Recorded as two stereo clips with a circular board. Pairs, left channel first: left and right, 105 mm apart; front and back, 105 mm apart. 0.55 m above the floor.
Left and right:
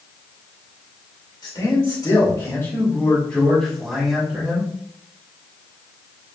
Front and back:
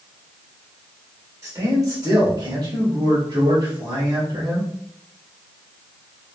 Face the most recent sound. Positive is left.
turn(degrees=-160)